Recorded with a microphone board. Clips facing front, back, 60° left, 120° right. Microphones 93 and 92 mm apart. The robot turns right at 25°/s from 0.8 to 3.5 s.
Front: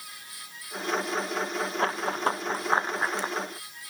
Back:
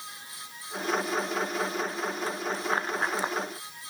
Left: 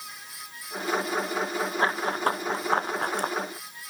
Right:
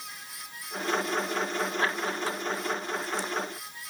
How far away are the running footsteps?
About 2 m.